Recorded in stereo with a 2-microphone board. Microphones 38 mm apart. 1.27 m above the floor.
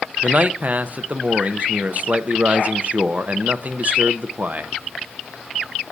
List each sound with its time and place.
0.2 s a man speaking: 40° right (ahead or behind), 0.7 m